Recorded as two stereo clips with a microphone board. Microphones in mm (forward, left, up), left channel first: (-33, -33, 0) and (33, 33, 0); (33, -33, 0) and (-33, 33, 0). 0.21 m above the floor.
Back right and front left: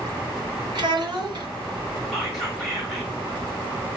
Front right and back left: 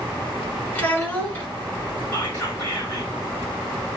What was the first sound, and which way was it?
A child speaking, 25° left.